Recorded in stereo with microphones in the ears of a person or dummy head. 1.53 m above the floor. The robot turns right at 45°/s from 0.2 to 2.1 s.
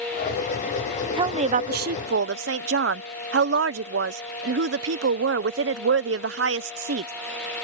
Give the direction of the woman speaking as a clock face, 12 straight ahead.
5 o'clock.